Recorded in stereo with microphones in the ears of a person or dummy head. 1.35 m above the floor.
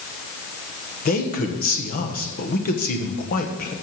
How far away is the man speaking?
About 1.3 m.